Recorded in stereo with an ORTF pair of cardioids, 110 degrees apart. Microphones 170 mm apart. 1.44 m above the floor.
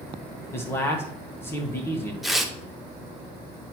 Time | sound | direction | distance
0.5 | a man speaking | 15° left | 1.4 m
2.2 | tearing paper | straight ahead | 1.0 m